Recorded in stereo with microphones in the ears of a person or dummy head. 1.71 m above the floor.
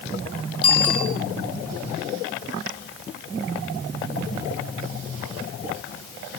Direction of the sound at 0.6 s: 5° left (ahead or behind).